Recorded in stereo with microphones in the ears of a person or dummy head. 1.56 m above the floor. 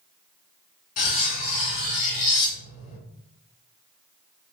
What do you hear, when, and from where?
1.0 s cutlery clinking: 35° left (ahead or behind), 1.0 m